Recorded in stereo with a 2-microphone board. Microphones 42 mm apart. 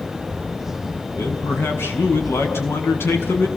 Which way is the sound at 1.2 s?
60° left (ahead or behind).